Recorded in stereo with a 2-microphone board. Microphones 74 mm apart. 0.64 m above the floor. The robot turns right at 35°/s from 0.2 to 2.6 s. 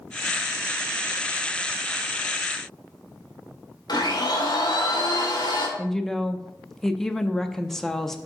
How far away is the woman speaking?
About 0.6 m.